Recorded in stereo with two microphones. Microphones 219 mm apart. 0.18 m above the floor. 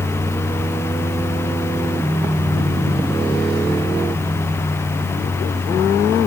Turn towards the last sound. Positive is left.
No sound to turn to.